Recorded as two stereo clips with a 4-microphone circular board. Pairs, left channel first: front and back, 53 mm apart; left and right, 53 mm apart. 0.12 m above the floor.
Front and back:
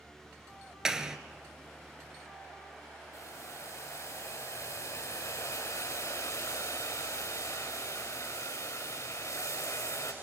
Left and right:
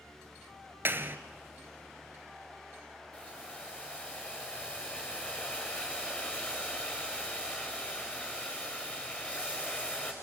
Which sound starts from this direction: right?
A clap, at 0.8 s.